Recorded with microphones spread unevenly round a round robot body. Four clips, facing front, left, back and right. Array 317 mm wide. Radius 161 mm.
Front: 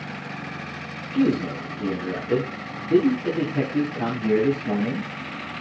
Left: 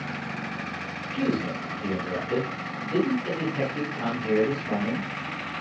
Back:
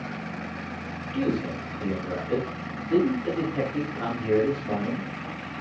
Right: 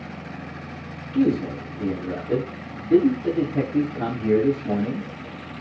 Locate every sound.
1.1 s a man speaking: 70° right, 6 m